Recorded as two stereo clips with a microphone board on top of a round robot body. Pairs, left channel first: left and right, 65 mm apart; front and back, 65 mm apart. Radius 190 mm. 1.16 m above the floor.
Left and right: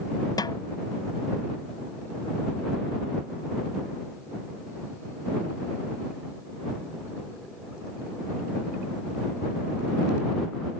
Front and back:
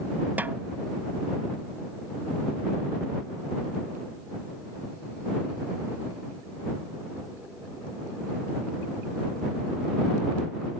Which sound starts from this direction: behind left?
A snare drum, at 0.4 s.